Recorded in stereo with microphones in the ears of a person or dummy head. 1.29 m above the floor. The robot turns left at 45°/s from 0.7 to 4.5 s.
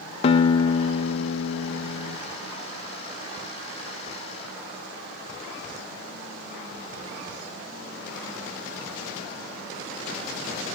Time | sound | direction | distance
0.2 | a guitar | 140° left | 0.7 m